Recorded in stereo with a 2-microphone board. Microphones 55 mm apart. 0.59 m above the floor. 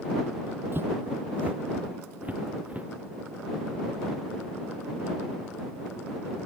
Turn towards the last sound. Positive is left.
turn(degrees=-25)  # may be behind; listen again after turning